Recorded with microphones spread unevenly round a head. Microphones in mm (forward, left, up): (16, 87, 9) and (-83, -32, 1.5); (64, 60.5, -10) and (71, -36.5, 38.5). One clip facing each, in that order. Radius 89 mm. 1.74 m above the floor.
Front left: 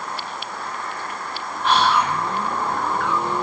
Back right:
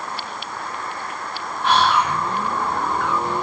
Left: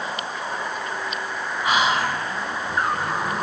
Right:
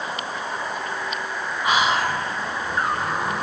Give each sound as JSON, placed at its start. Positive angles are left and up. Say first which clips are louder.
{"t": 1.6, "sound": "whispering", "louder": "even, even", "azimuth_deg": -160, "distance_m": 1.3}